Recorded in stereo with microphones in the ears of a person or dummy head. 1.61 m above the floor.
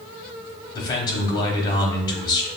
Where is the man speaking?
25° left (ahead or behind), 1.3 m.